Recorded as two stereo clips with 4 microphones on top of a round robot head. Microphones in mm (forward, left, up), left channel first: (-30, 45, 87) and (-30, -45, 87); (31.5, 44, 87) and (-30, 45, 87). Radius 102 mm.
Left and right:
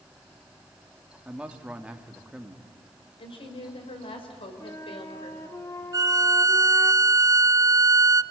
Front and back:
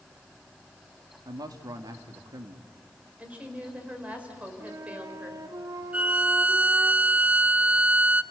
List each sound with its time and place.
1.2 s a man speaking: 170° right, 1.9 m
3.2 s a woman speaking: 110° left, 5 m
4.6 s a flute: 150° left, 1.8 m
5.9 s a violin: 125° right, 0.7 m